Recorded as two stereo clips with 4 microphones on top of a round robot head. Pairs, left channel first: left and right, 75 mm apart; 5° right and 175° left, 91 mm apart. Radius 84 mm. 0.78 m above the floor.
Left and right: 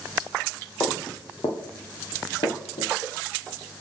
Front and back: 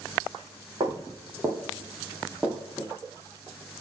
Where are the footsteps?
135° left, 2.5 m; by 2.9 s 70° left, 2 m.